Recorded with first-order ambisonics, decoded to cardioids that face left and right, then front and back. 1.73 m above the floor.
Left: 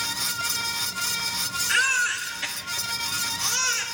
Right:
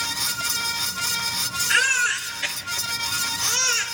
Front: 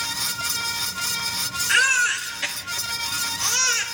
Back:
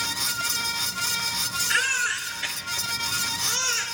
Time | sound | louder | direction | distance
1.7 | a baby crying | right 2 dB, front 6 dB | 15° left | 1.5 m